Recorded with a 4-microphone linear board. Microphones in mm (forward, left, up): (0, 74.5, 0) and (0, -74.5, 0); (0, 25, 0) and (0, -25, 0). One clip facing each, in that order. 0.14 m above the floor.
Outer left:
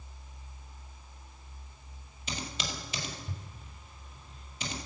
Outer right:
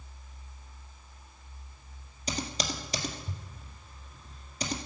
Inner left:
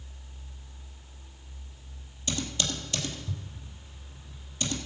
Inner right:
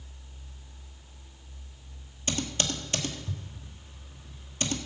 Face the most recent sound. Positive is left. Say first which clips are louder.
# outer right 5 dB, inner right 1 dB
turn(degrees=-40)  # may be behind; listen again after turning